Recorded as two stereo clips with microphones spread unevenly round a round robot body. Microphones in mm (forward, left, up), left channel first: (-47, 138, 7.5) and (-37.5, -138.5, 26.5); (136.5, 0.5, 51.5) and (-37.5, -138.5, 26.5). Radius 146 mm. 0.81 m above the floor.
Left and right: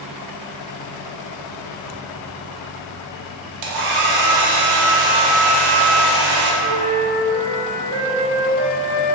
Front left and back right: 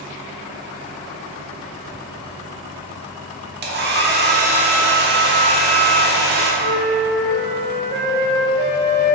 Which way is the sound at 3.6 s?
90° right.